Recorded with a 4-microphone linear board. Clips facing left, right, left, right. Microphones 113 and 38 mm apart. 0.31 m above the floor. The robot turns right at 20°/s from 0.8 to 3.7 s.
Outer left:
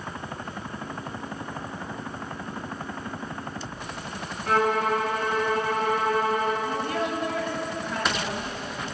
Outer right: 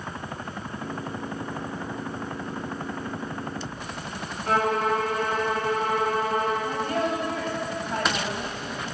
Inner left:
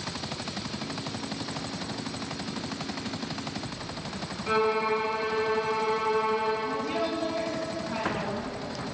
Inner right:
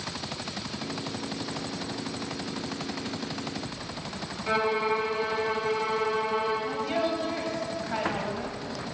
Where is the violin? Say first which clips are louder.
Even, inner left 1 dB; 40° right (ahead or behind), 1.8 m.